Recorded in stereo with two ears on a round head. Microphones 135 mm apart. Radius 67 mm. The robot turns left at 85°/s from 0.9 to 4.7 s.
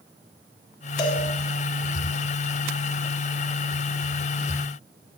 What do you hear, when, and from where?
1.0 s a cowbell: 25° left (ahead or behind), 3.5 m; by 1.2 s 50° left (ahead or behind), 3.5 m